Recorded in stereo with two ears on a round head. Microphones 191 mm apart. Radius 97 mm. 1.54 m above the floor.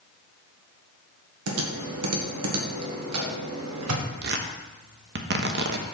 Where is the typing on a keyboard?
80° right, 1.7 m.